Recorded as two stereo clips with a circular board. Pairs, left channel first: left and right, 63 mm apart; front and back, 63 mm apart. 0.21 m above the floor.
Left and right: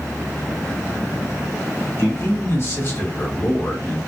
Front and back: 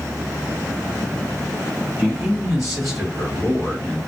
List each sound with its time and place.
2.0 s a man speaking: 115° left, 2.5 m; by 4.0 s 70° left, 2.5 m